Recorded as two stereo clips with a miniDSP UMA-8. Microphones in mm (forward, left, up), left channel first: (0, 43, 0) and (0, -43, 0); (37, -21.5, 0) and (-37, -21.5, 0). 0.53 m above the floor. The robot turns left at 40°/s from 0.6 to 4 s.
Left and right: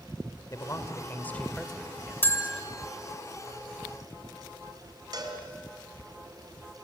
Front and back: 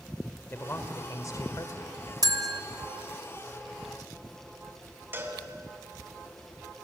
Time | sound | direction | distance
0.5 | a man speaking | 50° left | 1.9 m
2.2 | a bell | 155° left | 1.3 m
5.1 | a cowbell | 120° right | 2.5 m